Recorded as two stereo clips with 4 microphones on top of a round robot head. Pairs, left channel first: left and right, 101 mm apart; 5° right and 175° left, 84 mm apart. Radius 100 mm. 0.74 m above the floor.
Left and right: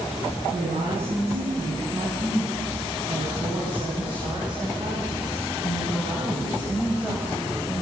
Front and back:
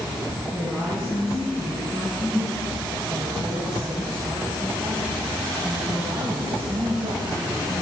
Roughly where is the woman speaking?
Right.